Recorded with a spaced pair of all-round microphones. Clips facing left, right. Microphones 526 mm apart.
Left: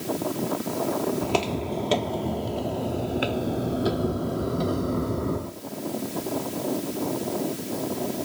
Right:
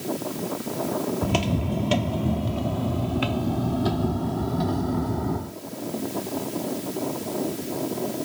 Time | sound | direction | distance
1.2 | footsteps | 35° right (ahead or behind) | ?